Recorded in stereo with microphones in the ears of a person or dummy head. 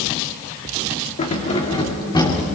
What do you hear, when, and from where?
1.2 s keys jangling: 35° left (ahead or behind), 2.5 m; by 2.4 s 15° left (ahead or behind), 3 m